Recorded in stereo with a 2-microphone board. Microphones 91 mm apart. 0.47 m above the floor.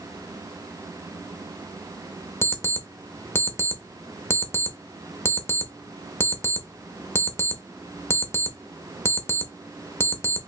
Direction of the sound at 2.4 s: 25° left (ahead or behind).